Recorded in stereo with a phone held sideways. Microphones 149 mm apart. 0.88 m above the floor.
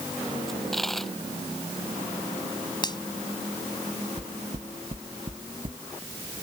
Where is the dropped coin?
Centre (ahead or behind).